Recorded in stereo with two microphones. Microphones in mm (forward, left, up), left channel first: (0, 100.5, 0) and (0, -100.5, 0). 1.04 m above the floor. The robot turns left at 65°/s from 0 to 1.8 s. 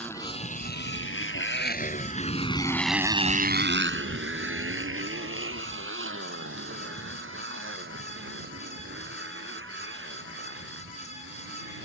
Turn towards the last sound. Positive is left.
turn(degrees=-75)  # may be behind; listen again after turning